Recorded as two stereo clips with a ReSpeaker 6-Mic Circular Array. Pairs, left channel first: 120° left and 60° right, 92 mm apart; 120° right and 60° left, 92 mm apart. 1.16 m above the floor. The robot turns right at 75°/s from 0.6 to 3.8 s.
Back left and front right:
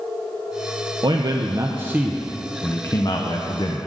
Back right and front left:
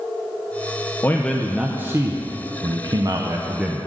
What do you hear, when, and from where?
1.0 s a man speaking: 60° right, 0.5 m; by 3.9 s 145° left, 0.5 m